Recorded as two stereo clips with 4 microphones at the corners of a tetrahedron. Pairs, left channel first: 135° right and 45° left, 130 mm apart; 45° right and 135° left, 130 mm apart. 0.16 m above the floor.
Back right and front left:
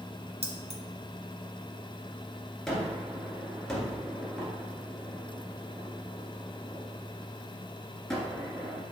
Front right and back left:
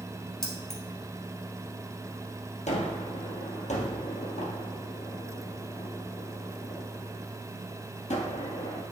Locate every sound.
0.4 s keys jangling: 40° left, 1.4 m
2.7 s a gunshot: 50° right, 1.8 m